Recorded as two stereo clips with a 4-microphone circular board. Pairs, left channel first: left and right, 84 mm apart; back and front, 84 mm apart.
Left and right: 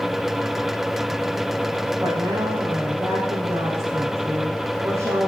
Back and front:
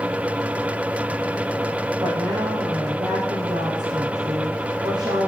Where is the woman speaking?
25° right, 3.5 m.